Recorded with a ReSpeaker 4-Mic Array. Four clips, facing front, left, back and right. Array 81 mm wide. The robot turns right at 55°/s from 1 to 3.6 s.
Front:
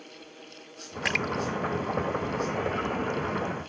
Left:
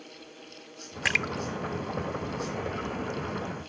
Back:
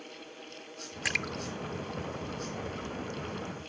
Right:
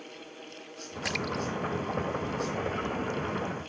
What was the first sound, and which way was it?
A splash, 65° left.